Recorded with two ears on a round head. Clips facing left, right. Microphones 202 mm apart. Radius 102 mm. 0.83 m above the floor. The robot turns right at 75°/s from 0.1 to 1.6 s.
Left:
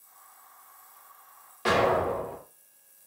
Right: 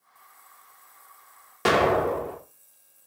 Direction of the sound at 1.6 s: 60° right (ahead or behind).